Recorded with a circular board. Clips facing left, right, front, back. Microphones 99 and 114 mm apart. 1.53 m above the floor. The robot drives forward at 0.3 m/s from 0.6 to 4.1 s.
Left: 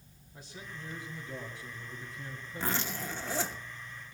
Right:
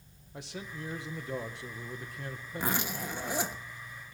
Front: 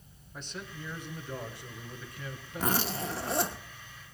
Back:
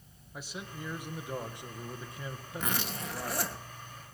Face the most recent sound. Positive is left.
turn(degrees=-55)